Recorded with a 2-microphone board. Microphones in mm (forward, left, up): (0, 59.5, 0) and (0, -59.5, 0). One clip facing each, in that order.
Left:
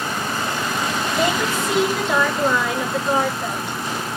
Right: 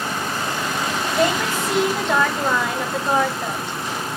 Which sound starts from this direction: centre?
A woman speaking, at 1.1 s.